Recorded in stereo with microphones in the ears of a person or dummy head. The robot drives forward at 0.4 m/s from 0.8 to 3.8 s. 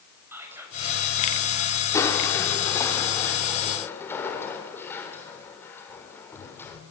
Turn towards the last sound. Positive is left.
turn(degrees=15)  # may be behind; listen again after turning